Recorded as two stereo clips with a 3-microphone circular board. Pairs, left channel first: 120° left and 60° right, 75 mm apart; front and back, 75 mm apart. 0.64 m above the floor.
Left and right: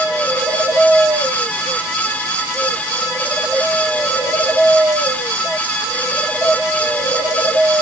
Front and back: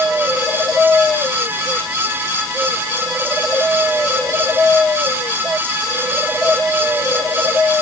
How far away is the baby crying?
No baby crying in this recording.